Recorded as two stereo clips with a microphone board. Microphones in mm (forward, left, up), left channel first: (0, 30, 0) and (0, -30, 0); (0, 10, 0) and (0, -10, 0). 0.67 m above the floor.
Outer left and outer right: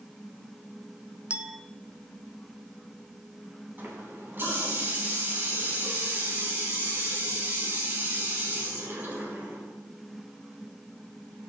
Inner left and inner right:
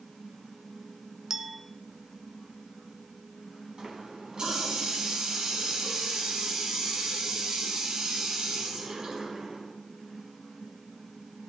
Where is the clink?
20° right (ahead or behind), 0.6 m.